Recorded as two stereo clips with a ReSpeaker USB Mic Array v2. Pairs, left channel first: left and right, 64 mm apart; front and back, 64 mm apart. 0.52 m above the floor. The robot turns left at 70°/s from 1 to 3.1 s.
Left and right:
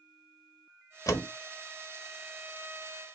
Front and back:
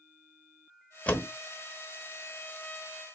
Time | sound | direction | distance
1.1 | a door slam | 65° left | 1.1 m